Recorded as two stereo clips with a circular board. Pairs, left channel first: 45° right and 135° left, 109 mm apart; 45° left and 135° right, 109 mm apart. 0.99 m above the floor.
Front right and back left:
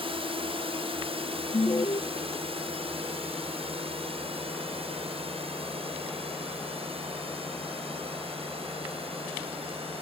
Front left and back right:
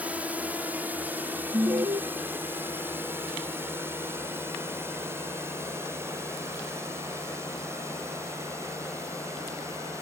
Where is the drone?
150° left; by 10.0 s 160° left.